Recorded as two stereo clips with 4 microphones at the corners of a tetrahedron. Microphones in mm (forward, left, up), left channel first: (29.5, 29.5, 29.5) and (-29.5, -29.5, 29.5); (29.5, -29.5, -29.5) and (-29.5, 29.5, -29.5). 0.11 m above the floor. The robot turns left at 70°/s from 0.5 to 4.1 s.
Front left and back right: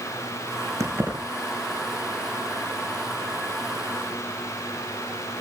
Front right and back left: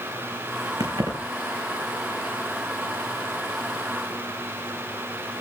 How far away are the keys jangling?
About 4 m.